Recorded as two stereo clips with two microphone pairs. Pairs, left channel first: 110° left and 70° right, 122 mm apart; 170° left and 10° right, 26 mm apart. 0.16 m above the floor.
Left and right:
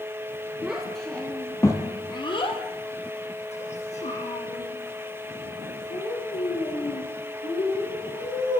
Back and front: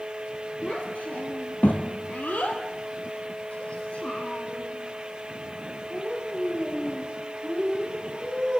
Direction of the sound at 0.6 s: 155° right.